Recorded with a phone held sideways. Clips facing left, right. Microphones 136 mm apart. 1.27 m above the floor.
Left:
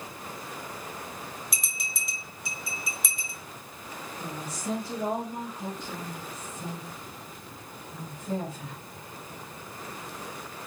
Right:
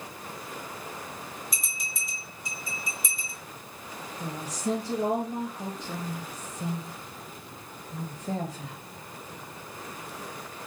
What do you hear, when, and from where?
1.5 s a bell: 65° left (ahead or behind), 1.3 m
4.2 s a woman speaking: 75° right (ahead or behind), 1.6 m